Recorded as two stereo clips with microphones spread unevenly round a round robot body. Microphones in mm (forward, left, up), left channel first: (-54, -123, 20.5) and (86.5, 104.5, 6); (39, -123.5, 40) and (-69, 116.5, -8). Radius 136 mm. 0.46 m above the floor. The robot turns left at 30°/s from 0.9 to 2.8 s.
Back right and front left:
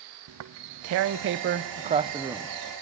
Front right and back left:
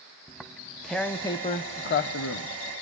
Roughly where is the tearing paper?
Ahead.